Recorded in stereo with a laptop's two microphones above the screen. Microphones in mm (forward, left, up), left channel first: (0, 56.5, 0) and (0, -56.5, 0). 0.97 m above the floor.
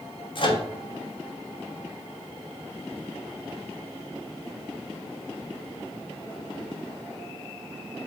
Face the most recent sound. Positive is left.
turn(degrees=45)  # may be behind; listen again after turning